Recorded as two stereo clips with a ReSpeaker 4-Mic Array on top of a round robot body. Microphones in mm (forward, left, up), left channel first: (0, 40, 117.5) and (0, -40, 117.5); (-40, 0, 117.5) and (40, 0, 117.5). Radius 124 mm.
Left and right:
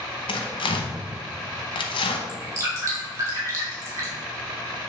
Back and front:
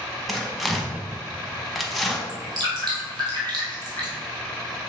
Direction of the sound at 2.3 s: 35° right.